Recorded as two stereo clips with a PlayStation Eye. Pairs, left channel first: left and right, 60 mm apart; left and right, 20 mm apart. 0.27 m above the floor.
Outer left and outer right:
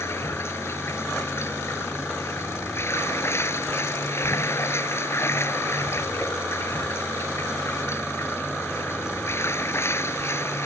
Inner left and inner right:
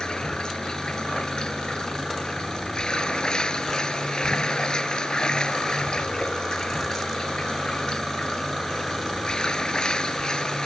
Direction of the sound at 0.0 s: 45° left (ahead or behind).